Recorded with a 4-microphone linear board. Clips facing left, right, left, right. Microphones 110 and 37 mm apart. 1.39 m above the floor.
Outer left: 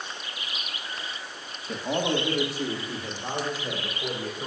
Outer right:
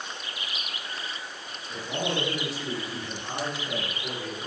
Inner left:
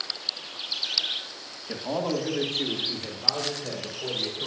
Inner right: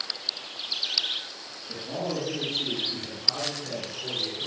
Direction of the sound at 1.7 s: 70° left (ahead or behind).